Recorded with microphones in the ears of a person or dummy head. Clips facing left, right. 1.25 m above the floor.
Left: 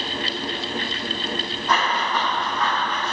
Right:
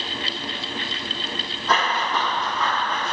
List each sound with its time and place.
1.7 s running footsteps: 60° right (ahead or behind), 2.5 m; by 3.1 s 70° right (ahead or behind), 3 m